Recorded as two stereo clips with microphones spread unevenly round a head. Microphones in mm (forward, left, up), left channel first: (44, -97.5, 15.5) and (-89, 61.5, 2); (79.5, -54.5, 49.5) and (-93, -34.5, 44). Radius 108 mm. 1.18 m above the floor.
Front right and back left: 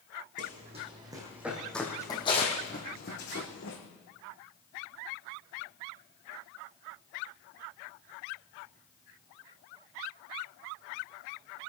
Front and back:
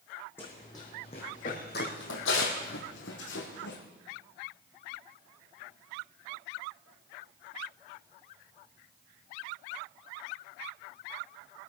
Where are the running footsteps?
70° left, 3 m; by 3.8 s 20° right, 3.5 m.